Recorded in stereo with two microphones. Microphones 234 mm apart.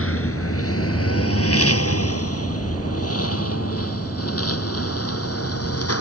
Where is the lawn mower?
70° left (ahead or behind); by 6.0 s 85° left.